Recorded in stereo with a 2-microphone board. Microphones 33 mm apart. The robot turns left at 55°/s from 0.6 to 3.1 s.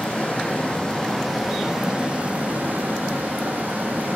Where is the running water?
45° left, 1.7 m; by 4.2 s 95° right, 1.7 m.